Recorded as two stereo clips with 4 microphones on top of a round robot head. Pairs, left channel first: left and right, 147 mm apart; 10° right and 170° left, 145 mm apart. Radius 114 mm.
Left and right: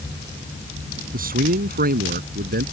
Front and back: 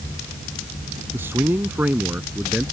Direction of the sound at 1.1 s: 110° right.